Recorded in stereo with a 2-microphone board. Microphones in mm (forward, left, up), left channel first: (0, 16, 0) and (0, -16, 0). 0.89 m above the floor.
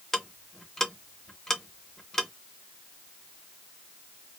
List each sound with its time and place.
0.1 s ticking: 15° left (ahead or behind), 0.7 m